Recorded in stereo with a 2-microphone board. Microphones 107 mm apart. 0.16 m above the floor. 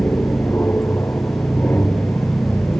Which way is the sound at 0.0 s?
20° left (ahead or behind).